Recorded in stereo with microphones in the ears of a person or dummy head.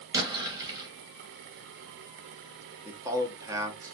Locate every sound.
0.1 s an explosion: 15° right (ahead or behind), 0.9 m
2.9 s a man speaking: 15° right (ahead or behind), 0.6 m